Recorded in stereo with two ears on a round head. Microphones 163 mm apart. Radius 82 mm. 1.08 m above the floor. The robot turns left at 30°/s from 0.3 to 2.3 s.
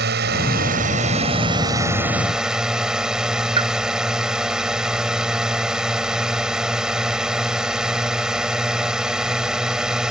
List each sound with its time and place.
0.0 s a drone: 115° right; by 10.1 s 175° right
3.6 s a pop: 30° right (ahead or behind)